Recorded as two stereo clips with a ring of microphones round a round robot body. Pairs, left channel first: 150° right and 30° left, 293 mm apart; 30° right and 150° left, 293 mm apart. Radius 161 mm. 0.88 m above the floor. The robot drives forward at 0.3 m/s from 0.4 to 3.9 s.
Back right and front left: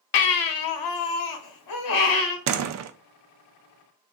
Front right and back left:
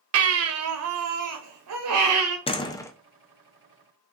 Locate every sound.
0.1 s a baby crying: 170° right, 0.7 m; by 2.4 s 175° right, 1.2 m
2.5 s a door slam: 40° left, 0.6 m; by 2.9 s 50° left, 0.6 m